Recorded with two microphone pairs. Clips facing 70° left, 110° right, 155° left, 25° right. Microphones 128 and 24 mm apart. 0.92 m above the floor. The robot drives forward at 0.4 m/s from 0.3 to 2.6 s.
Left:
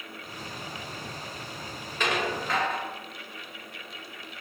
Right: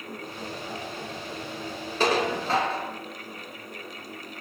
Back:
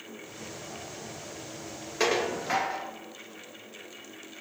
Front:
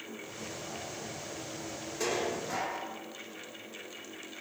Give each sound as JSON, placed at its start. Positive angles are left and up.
{"t": 2.0, "sound": "dishes clattering", "azimuth_deg": -165, "distance_m": 0.6}